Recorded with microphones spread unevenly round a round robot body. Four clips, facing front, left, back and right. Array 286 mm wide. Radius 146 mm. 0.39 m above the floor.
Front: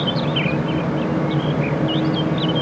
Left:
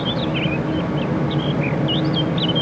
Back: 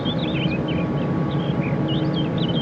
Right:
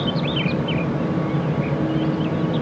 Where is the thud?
No thud in this recording.